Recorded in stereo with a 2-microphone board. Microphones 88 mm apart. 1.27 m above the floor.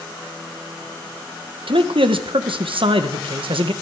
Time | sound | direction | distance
1.7 | a man speaking | 75° right (ahead or behind) | 1.2 m